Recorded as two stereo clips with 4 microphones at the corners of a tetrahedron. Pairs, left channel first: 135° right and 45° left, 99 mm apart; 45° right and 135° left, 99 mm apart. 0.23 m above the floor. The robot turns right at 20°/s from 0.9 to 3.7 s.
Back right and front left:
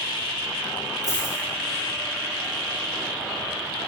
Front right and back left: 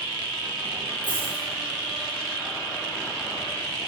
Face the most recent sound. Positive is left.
turn(degrees=50)